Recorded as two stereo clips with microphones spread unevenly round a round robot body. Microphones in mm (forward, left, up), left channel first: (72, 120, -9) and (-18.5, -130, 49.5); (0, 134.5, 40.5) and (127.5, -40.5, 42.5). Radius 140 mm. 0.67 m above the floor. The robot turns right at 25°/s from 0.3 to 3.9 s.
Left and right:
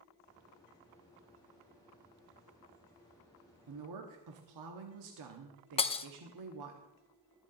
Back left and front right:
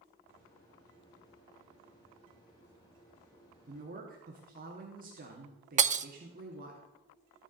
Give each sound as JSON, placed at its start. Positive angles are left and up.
{"t": 3.7, "sound": "a woman speaking", "azimuth_deg": -110, "distance_m": 1.1}
{"t": 5.8, "sound": "breaking glass", "azimuth_deg": 5, "distance_m": 0.5}